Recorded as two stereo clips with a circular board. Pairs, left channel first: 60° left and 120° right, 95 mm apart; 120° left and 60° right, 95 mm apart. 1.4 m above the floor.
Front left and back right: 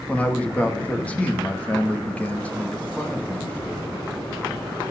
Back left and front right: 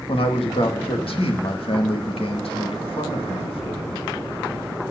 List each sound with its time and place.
0.1 s a man speaking: 135° left, 2.0 m